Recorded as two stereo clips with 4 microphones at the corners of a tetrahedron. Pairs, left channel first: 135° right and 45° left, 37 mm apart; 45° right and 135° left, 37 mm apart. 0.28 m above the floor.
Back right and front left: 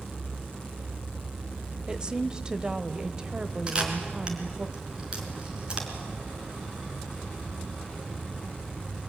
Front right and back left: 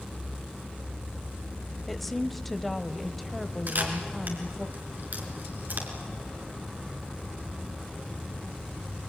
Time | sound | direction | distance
1.9 | a woman speaking | 30° left | 1.0 m
3.7 | a camera shutter | 105° left | 3.5 m